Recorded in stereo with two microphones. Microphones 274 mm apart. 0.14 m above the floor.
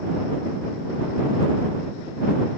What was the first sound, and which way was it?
Only background noise.